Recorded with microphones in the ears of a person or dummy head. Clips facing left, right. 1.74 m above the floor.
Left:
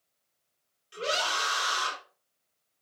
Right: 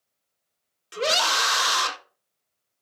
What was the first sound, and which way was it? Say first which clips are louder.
A scream: right 6 dB; 75° right (ahead or behind).